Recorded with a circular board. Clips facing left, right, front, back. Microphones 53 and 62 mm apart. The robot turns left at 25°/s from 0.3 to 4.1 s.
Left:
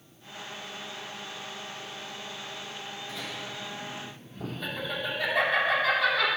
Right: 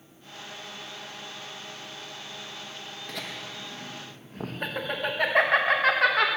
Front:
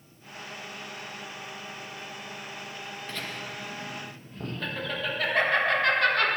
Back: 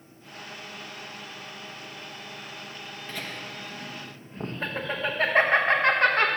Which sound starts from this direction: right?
Laughter, at 3.1 s.